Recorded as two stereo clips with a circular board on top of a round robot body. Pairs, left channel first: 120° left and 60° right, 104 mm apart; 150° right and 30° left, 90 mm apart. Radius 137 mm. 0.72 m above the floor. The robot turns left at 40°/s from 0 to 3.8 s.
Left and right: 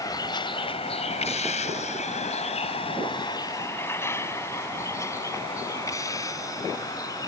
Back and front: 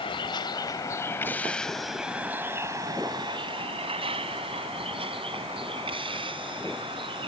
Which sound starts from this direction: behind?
A vehicle, at 0.0 s.